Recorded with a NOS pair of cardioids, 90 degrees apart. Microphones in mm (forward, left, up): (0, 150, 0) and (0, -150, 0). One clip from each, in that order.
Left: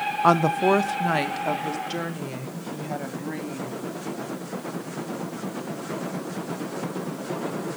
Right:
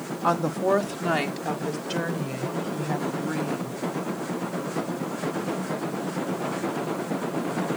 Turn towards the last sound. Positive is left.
turn(degrees=-5)